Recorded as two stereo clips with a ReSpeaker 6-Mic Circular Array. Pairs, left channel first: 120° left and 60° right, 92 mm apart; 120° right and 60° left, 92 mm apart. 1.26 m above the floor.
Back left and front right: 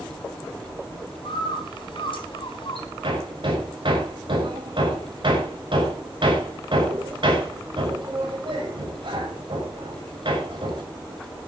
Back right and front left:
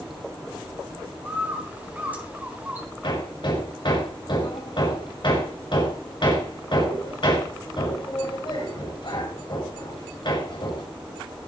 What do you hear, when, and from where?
1.2 s a bird: 135° left, 3 m
3.0 s hammering: 90° right, 5.5 m